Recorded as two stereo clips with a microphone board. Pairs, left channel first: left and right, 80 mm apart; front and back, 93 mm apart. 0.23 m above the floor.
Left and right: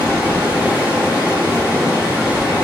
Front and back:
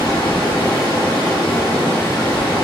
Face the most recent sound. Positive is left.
turn(degrees=-35)